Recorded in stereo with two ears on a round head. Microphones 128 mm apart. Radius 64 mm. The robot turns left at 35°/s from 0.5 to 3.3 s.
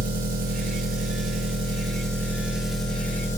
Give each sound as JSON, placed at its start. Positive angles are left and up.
{"t": 0.0, "sound": "an engine running", "azimuth_deg": -100, "distance_m": 7.0}